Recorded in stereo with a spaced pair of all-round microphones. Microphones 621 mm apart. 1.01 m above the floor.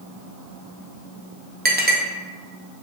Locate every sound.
1.6 s a clink: 15° right (ahead or behind), 0.5 m